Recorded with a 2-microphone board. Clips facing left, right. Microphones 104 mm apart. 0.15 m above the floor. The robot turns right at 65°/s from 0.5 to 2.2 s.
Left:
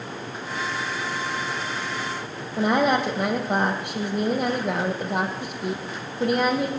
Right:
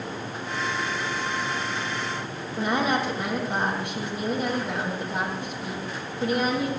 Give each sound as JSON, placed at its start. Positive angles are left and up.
{"t": 2.6, "sound": "a woman speaking", "side_deg": 70, "distance_m": 4.5}